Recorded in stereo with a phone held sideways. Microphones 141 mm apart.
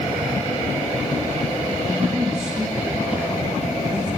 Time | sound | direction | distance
1.9 | a man speaking | 25° right (ahead or behind) | 1.9 m